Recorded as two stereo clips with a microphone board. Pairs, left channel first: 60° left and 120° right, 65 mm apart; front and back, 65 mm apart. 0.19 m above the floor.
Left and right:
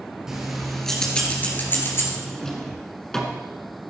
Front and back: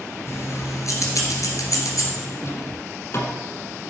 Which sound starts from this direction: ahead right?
Keys jangling, at 0.3 s.